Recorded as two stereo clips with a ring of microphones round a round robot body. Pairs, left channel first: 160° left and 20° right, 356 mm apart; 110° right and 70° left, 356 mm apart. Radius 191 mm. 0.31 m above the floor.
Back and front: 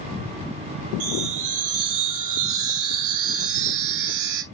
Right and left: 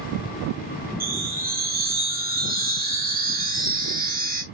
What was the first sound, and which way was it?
A chime, 5° left.